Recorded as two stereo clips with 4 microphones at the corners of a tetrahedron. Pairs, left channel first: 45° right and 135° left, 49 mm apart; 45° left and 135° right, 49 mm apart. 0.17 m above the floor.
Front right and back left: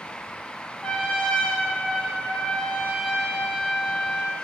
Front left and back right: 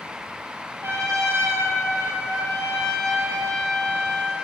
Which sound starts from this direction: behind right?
A trumpet, at 0.8 s.